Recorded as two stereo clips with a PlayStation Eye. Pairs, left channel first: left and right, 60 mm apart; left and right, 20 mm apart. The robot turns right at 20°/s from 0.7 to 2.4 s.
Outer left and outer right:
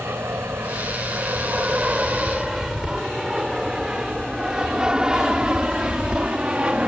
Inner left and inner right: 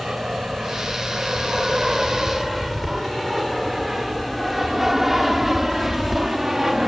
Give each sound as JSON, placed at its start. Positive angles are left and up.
{"t": 0.0, "sound": "an aircraft", "side_deg": -40}